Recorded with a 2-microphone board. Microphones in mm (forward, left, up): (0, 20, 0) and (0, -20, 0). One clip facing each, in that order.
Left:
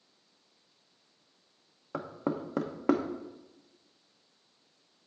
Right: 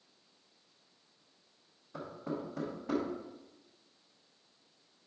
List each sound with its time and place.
1.9 s knocking: 80° left, 0.8 m